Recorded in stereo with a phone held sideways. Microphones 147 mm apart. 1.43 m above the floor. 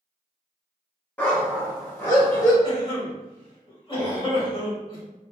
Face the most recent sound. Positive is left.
turn(degrees=40)  # may be behind; listen again after turning